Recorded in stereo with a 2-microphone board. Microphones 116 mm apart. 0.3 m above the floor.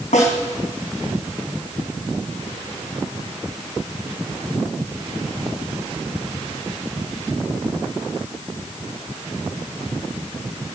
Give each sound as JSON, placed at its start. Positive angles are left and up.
{"t": 0.1, "sound": "a snare drum", "side_deg": 80, "distance_m": 3.5}